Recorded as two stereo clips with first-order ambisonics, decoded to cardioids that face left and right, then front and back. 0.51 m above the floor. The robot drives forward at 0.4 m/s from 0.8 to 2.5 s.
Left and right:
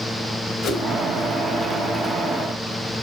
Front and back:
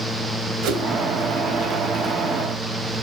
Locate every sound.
0.6 s a whoosh: 145° left, 1.2 m